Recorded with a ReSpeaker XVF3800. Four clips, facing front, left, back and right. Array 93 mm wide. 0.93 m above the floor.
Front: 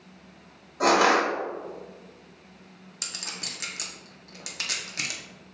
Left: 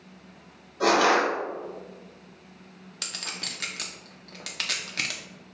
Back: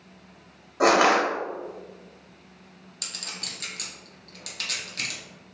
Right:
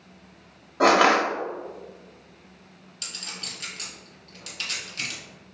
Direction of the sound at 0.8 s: 115° right.